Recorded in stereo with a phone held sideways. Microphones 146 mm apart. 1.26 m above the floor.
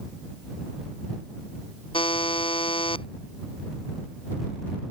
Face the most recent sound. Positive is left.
turn(degrees=40)  # may be behind; listen again after turning